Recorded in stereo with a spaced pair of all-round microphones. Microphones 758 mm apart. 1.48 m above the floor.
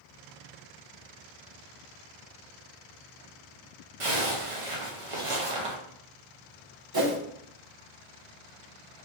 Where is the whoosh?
30° right (ahead or behind), 0.6 m.